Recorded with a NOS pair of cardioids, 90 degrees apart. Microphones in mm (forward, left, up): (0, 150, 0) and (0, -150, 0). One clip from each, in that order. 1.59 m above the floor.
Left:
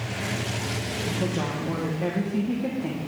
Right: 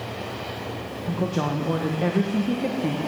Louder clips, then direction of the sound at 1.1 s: Right 5 dB; 25° right.